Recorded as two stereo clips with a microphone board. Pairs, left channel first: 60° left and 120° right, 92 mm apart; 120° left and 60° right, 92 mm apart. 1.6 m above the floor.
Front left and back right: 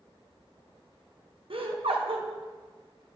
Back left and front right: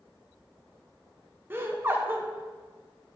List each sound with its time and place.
1.5 s laughter: 125° right, 1.5 m